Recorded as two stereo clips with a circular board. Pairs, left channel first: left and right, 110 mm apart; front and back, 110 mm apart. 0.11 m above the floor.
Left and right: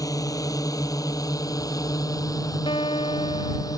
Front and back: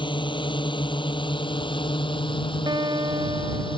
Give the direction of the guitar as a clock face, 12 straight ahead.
8 o'clock.